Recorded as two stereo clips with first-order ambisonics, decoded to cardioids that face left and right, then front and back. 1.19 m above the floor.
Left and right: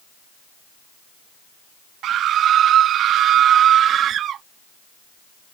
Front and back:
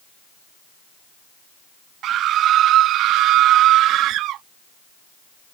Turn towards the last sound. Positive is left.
turn(degrees=-140)